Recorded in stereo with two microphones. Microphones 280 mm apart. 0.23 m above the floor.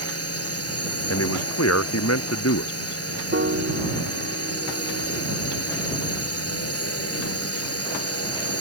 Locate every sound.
0.0 s a drone: 65° left (ahead or behind)
1.1 s a man speaking: 70° left (ahead or behind)
3.3 s a piano: 50° right (ahead or behind)